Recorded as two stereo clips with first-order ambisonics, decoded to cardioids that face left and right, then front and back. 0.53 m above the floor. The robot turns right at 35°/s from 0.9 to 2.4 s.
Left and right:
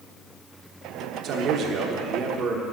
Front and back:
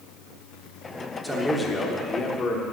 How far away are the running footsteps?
I don't hear running footsteps.